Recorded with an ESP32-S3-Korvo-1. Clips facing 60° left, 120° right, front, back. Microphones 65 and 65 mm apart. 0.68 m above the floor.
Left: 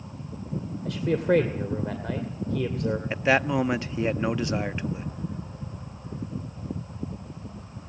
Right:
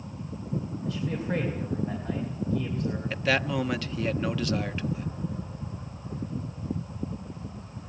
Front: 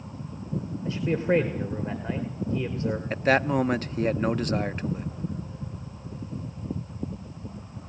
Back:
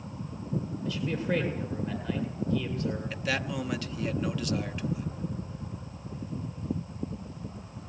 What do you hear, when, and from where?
0.8 s a man speaking: 55° left, 2.5 m
3.1 s a man speaking: 5° left, 0.6 m